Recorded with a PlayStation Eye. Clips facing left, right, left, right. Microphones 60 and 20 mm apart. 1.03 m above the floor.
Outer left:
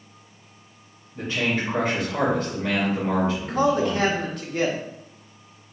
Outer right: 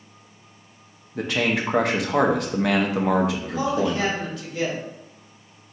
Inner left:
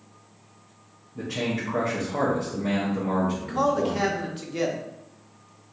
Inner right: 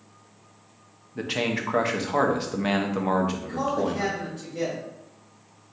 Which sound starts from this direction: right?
A man speaking, at 1.1 s.